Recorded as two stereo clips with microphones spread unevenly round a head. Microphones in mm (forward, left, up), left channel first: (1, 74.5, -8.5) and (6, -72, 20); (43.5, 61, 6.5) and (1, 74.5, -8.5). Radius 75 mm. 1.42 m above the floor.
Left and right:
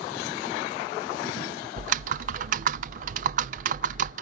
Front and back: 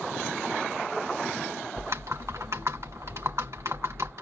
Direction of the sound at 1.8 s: 125° right.